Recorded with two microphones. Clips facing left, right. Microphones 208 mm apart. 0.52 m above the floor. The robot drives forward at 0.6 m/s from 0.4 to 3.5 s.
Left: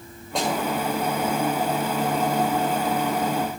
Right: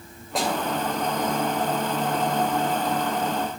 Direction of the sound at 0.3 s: Centre (ahead or behind).